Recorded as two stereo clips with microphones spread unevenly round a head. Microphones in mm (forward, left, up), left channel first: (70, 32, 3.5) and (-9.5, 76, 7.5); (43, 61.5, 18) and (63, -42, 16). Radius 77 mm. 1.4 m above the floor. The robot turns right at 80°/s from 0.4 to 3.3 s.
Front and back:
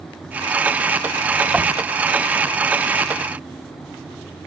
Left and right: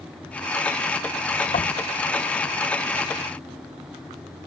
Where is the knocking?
70° left; by 1.8 s 90° left.